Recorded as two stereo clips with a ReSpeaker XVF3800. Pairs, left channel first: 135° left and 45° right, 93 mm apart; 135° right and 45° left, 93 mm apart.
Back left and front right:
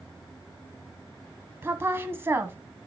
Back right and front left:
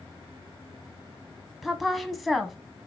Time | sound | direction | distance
1.6 | a woman speaking | 45° right | 1.4 m